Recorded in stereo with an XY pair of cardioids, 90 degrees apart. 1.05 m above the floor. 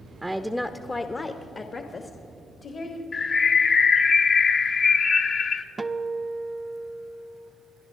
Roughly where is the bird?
Ahead left.